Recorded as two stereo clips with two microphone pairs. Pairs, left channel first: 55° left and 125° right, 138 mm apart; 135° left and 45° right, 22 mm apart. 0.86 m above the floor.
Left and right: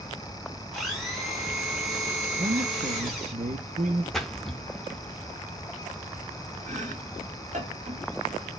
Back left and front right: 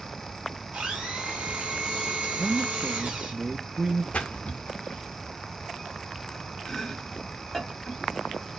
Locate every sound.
0.7 s a blender: 30° right, 1.8 m
2.3 s a man speaking: 115° right, 0.8 m
4.1 s a splash: 145° left, 0.7 m
6.7 s chopping: 145° right, 2 m